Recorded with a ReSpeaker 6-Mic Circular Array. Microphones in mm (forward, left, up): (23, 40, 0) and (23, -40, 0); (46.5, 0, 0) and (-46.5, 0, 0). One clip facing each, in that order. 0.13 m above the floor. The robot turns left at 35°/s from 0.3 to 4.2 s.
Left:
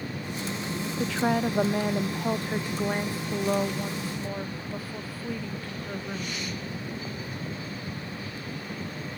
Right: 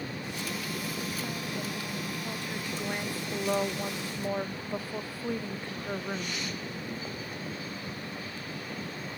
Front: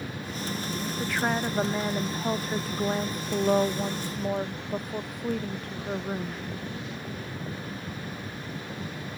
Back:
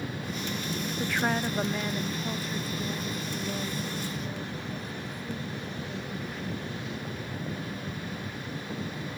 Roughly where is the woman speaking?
Left.